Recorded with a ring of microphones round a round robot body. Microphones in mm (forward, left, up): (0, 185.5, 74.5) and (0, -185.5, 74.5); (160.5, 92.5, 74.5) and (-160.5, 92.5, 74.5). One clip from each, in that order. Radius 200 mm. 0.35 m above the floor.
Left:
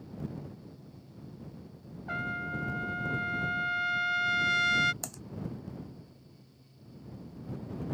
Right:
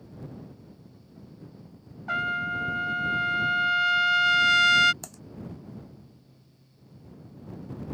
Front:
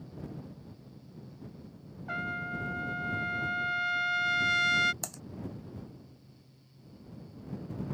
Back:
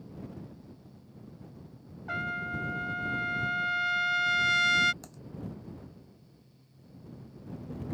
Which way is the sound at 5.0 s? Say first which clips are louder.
Left 2 dB, front 10 dB; 5° left.